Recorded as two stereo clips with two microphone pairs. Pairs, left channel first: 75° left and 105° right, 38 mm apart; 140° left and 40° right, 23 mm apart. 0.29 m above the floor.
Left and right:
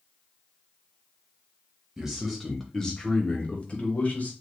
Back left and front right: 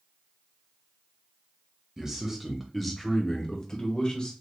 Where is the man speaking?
45° right, 1.0 m; by 4.3 s 100° left, 1.3 m.